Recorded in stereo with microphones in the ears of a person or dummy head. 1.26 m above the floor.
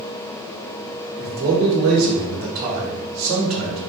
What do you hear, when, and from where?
1.2 s a man speaking: 50° right (ahead or behind), 1.2 m